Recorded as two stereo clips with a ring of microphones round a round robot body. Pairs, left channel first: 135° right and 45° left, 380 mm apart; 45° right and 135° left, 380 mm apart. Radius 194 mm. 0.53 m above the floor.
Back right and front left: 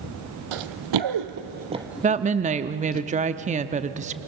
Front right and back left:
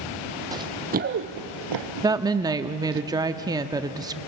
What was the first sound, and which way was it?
Running footsteps, 55° left.